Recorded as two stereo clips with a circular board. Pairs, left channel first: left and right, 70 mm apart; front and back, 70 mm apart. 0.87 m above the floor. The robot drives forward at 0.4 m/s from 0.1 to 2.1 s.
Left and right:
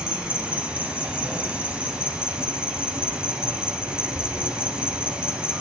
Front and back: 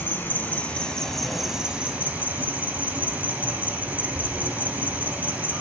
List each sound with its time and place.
0.0 s an insect: 25° right, 0.9 m; by 5.6 s 145° right, 0.8 m